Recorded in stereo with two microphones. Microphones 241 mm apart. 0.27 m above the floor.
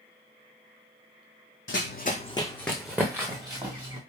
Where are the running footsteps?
60° left (ahead or behind), 0.7 m; by 4.0 s 25° right (ahead or behind), 1.6 m.